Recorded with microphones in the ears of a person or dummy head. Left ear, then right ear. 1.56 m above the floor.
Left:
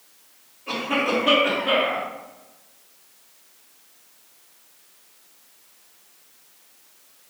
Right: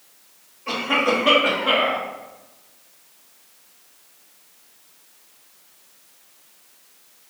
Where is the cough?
60° right (ahead or behind), 1.9 m.